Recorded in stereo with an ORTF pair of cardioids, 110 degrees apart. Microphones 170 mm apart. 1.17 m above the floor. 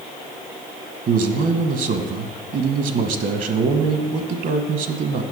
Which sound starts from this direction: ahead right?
A man speaking, at 1.1 s.